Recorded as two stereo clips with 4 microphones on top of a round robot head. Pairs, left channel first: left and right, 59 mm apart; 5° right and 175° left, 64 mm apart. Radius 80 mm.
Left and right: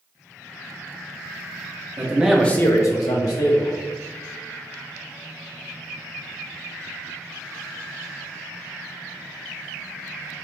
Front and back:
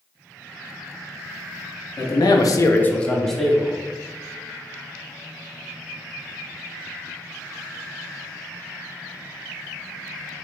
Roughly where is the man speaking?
Ahead right.